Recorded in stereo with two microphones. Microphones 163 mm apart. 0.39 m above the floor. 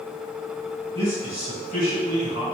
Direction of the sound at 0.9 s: 45° right (ahead or behind).